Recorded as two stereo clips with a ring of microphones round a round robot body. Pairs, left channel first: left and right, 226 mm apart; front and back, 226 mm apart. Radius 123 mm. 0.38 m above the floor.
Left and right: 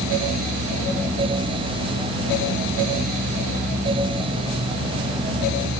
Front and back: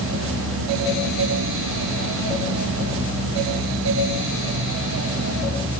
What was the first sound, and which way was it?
Only background noise.